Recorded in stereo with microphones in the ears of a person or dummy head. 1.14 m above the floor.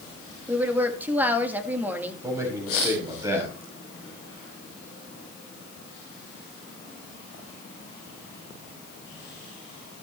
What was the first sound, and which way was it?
A woman speaking, 10° right (ahead or behind).